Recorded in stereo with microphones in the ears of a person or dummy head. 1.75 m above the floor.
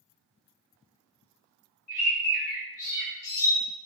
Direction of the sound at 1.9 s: 80° left.